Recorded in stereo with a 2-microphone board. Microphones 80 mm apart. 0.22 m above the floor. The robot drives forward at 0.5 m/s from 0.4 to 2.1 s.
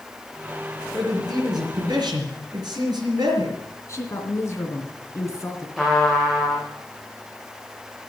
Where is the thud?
No thud in this recording.